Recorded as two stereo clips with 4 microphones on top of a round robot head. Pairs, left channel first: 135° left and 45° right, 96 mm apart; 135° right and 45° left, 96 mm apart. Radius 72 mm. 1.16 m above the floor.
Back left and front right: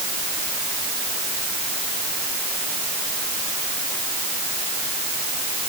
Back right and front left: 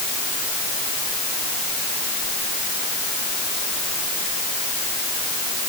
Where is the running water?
I don't hear running water.